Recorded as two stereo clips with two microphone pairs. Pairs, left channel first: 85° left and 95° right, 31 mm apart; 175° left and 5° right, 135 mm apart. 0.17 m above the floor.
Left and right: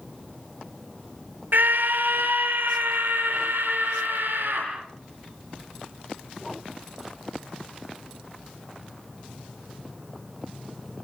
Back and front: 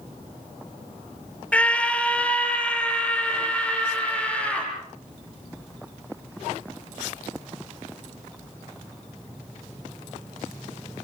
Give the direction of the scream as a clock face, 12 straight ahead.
4 o'clock.